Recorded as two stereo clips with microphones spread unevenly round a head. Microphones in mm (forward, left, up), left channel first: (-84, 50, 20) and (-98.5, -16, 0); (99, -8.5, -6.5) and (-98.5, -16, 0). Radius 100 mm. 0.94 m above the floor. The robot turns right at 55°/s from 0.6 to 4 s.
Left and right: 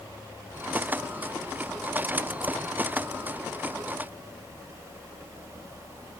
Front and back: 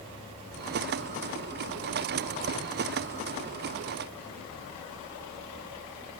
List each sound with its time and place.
Only background noise.